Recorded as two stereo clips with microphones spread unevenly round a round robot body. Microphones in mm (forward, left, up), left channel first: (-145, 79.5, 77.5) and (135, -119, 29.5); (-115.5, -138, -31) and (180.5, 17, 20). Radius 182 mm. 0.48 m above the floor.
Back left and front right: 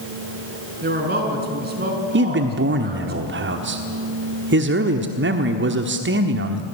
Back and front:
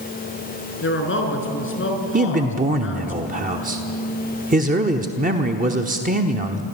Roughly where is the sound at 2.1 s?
Ahead right.